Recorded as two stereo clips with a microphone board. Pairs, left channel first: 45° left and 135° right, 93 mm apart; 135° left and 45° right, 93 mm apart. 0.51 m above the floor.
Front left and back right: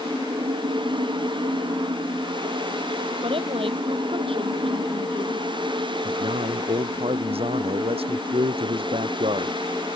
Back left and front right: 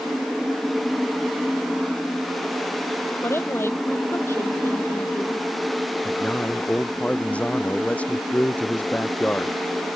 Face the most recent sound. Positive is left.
turn(degrees=-150)